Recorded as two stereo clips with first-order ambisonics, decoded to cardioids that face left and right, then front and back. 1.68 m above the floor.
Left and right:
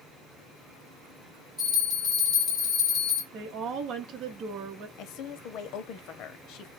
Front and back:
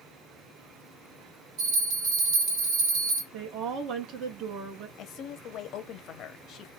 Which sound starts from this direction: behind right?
A woman speaking, at 3.3 s.